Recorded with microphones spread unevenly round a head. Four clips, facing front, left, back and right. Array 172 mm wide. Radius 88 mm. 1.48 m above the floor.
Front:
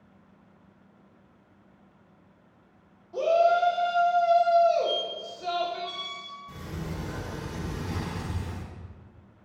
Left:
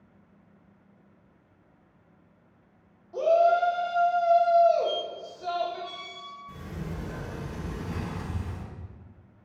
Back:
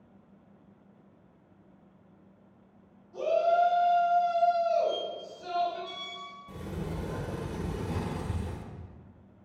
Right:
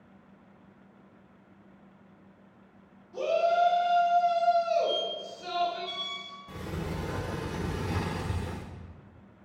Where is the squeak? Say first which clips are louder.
Even, front 1 dB; 130° left, 3 m.